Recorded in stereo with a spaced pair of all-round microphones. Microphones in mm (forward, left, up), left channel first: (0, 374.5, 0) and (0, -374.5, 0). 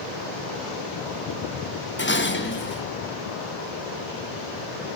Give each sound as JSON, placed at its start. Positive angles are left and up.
{"t": 2.0, "sound": "dishes clattering", "side_deg": 15, "distance_m": 0.8}